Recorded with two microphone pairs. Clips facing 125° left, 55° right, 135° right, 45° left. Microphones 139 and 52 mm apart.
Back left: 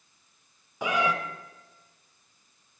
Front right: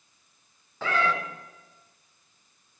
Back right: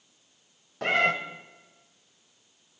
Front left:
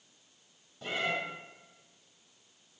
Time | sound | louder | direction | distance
0.8 | a cat meowing | even, back right 10 dB | 160° right | 1.4 m